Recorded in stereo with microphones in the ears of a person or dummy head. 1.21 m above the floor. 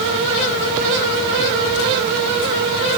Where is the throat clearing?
I don't hear throat clearing.